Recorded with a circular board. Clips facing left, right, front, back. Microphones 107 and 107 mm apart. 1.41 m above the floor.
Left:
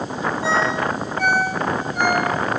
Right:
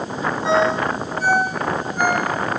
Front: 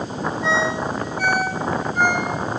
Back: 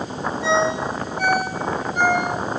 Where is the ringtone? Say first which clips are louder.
Right 4 dB, back 3 dB; 105° left, 7.5 m.